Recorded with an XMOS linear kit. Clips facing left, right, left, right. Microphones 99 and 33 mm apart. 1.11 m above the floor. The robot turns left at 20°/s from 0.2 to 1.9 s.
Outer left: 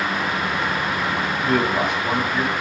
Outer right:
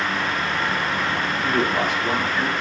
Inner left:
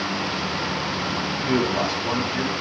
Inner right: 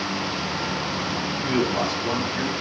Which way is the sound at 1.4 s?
10° left (ahead or behind).